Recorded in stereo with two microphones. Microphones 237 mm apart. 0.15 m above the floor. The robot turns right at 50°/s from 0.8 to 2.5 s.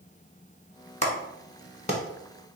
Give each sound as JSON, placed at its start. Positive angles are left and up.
{"t": 1.0, "sound": "a clap", "side_deg": 30, "distance_m": 0.9}